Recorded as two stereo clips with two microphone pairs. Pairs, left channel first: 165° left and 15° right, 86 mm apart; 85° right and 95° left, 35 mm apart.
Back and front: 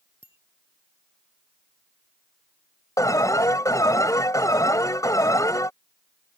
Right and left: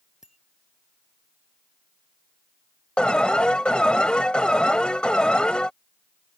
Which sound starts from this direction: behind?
A bicycle bell, at 0.2 s.